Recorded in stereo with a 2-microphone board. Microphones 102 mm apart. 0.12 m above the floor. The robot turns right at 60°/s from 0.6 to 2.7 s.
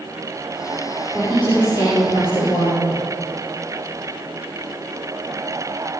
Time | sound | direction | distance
1.1 | a woman speaking | 5° right | 5.5 m